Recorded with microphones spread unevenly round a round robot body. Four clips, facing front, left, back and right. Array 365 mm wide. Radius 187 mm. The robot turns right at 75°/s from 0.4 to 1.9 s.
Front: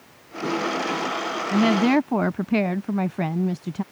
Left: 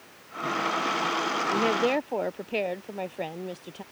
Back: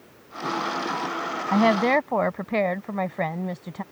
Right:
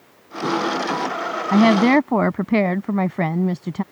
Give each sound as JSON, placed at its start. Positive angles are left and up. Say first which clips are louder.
{"t": 1.5, "sound": "a woman speaking", "louder": "right 12 dB, front 1 dB", "azimuth_deg": -105}